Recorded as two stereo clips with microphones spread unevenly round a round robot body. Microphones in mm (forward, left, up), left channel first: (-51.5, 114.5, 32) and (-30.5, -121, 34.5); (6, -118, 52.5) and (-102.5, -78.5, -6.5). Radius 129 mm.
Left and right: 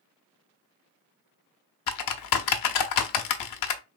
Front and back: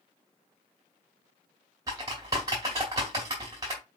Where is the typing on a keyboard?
85° left, 0.6 m.